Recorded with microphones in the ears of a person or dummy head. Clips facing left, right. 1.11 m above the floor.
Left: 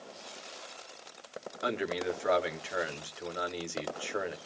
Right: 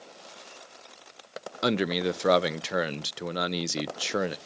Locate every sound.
1.6 s a man speaking: 45° right (ahead or behind), 0.6 m